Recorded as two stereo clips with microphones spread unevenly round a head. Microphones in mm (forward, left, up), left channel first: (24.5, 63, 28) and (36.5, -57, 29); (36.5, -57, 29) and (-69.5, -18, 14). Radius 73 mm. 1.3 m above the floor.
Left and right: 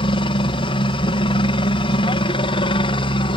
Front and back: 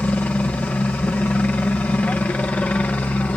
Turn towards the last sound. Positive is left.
turn(degrees=65)